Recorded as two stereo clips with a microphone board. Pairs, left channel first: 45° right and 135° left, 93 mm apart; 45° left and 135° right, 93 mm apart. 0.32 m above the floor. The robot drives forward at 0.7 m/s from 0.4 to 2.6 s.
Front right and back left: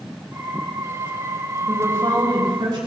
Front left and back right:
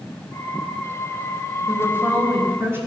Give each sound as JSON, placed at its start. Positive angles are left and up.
{"t": 1.7, "sound": "a woman speaking", "azimuth_deg": 170, "distance_m": 1.2}